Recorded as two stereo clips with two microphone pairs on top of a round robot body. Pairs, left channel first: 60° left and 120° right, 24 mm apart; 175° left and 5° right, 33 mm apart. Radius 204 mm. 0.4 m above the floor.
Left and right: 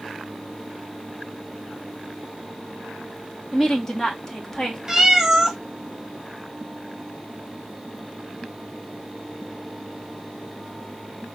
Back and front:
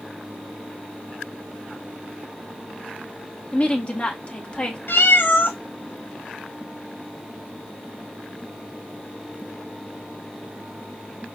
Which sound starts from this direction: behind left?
A woman speaking, at 3.5 s.